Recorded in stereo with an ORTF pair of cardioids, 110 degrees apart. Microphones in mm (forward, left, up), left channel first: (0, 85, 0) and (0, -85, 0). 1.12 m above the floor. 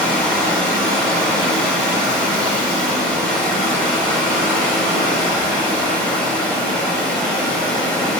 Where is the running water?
5° left, 0.7 m.